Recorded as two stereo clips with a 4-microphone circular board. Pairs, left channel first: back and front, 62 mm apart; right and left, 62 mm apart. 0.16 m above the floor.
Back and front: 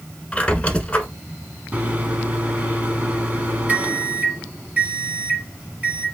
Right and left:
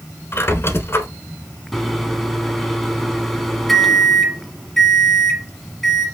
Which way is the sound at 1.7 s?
5° right.